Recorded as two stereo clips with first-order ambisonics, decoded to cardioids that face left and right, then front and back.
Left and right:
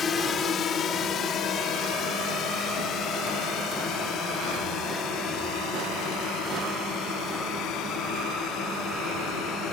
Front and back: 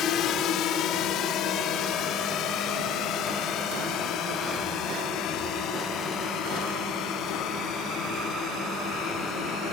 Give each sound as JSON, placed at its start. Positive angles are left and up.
{"t": 0.0, "sound": "a drone", "azimuth_deg": 35}